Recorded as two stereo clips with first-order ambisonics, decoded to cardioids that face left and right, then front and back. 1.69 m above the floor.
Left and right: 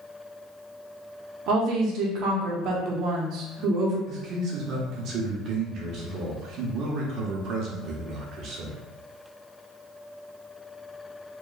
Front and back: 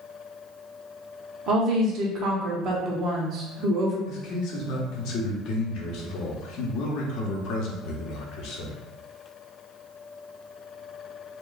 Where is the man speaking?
40° right, 0.8 m.